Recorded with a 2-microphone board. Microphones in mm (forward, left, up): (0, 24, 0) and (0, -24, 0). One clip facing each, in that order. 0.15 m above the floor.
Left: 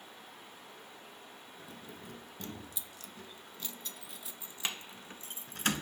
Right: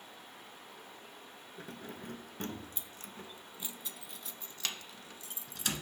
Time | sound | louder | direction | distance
1.6 | keys jangling | right 5 dB | 60° right (ahead or behind) | 1.5 m